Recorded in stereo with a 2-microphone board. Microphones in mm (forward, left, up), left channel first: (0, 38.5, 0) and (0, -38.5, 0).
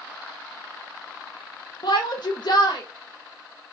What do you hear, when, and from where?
1.8 s a shout: 70° left (ahead or behind), 0.5 m